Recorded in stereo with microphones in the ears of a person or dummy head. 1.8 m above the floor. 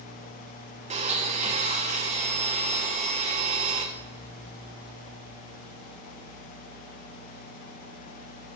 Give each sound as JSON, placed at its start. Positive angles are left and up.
{"t": 0.9, "sound": "a blender", "side_deg": -35, "distance_m": 0.9}